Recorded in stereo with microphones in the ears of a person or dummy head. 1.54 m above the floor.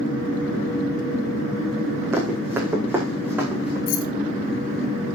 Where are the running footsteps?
5° right (ahead or behind), 5.5 m.